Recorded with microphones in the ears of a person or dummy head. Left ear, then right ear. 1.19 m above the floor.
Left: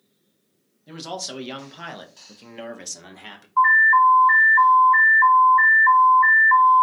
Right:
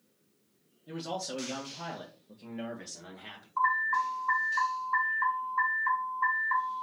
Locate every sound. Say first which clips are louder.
0.9 s a man speaking: left 4 dB; 25° left (ahead or behind), 1.4 m; by 3.5 s 70° left (ahead or behind), 1.2 m
3.6 s an alarm: left 13 dB; 15° left (ahead or behind), 2.5 m